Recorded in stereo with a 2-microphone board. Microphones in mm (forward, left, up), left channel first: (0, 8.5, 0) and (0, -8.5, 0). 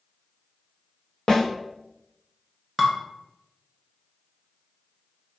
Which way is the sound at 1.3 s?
40° left (ahead or behind).